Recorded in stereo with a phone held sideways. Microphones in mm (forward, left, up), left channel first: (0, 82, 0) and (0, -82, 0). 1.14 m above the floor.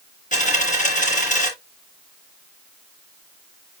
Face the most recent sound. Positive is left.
turn(degrees=50)  # may be behind; listen again after turning